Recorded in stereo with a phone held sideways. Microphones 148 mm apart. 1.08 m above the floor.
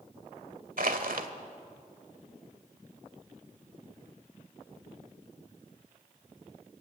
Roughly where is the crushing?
Right.